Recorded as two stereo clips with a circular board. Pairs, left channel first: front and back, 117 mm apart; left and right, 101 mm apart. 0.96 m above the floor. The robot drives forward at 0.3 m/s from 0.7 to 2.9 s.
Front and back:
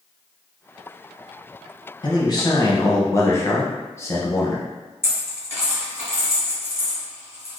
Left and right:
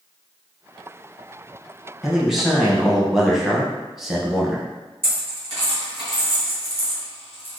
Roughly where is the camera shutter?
No camera shutter in this recording.